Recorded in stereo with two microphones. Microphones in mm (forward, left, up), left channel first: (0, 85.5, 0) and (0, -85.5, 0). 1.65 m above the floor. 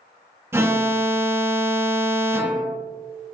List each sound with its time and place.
0.5 s an alarm: 15° right (ahead or behind), 1.2 m